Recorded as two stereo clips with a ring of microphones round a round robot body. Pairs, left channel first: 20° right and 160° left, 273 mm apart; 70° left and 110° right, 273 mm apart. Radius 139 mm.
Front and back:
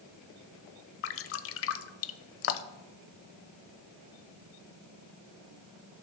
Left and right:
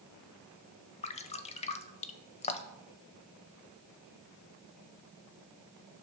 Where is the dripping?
5° left, 0.5 m.